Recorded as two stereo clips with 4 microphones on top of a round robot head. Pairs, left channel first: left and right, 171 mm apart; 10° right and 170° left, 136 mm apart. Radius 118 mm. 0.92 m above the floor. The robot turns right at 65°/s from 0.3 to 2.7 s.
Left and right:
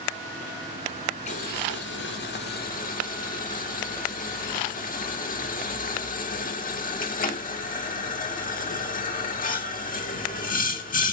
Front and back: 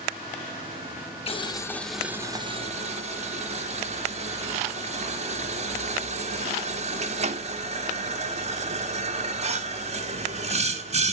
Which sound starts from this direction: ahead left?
Boiling, at 1.3 s.